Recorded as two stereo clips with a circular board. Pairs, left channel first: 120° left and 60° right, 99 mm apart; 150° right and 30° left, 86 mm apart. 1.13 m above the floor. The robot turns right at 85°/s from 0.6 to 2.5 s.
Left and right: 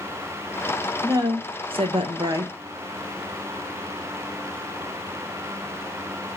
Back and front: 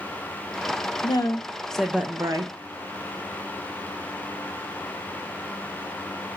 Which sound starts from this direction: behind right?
A woman speaking, at 1.0 s.